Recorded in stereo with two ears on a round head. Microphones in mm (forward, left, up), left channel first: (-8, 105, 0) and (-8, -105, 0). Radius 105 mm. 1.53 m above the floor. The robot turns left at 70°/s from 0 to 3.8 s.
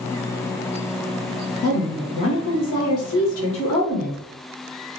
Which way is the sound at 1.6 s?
160° left.